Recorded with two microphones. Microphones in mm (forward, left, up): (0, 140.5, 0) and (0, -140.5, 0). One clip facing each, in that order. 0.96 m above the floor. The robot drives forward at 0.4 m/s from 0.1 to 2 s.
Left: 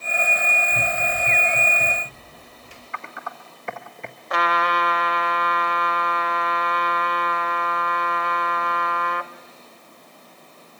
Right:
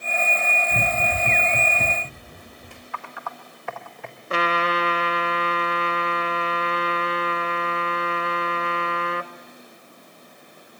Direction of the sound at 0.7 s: 30° right (ahead or behind).